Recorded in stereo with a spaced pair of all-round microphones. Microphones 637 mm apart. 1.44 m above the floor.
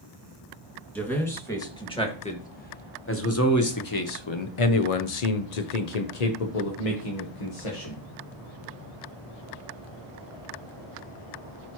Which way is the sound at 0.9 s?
Centre (ahead or behind).